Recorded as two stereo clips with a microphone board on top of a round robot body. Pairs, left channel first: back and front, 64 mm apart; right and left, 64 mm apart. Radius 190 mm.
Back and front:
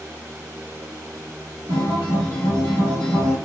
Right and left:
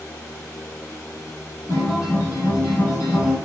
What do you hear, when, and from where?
1.7 s a guitar: 30° right, 0.7 m